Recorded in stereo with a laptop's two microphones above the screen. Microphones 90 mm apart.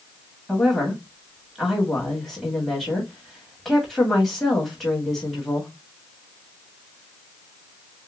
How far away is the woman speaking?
About 1.8 m.